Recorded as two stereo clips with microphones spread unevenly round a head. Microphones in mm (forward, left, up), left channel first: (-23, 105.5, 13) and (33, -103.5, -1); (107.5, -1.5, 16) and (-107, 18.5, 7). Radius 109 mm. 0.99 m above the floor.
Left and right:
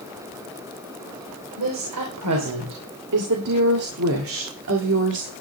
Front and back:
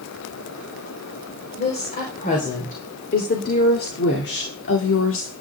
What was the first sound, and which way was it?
A woman speaking, 65° right.